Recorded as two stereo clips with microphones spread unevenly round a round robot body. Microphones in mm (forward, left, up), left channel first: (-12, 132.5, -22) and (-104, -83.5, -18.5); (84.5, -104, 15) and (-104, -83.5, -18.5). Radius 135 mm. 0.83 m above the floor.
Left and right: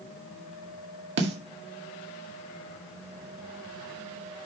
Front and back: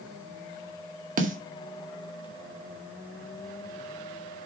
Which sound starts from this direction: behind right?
A snare drum, at 1.2 s.